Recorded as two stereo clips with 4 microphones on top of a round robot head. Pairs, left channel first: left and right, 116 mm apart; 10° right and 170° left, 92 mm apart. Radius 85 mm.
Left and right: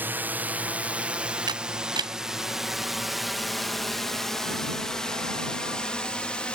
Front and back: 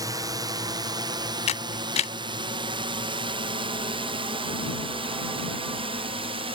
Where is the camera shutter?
30° right.